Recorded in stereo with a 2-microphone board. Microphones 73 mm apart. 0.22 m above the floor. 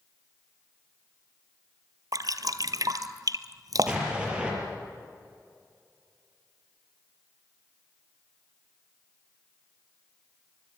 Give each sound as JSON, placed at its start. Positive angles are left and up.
{"t": 2.1, "sound": "dripping", "side_deg": -60, "distance_m": 1.0}
{"t": 3.9, "sound": "an explosion", "side_deg": -15, "distance_m": 6.0}